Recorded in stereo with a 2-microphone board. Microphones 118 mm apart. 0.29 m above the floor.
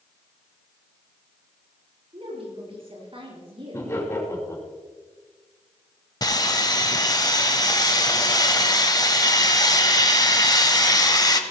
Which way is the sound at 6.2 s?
35° left (ahead or behind).